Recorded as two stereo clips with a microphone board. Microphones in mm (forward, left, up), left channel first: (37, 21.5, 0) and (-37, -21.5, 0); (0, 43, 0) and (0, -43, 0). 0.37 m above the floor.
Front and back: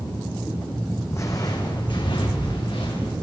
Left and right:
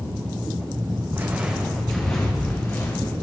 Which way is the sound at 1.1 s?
25° right.